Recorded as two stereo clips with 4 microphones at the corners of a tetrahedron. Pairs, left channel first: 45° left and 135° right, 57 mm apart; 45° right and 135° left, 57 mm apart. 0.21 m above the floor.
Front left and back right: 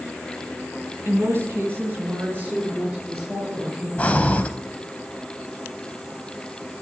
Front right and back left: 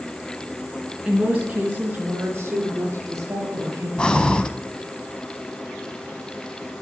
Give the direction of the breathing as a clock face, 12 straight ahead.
12 o'clock.